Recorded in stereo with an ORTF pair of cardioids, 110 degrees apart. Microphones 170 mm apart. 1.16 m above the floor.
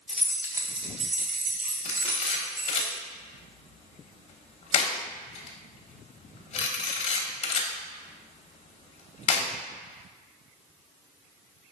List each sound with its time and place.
0.1 s keys jangling: 5° left, 0.6 m; by 2.9 s 70° right, 1.7 m
1.9 s a camera shutter: 40° left, 0.9 m